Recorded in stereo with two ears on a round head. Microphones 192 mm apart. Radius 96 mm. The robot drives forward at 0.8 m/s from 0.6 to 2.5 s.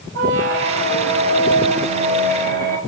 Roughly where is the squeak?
Right.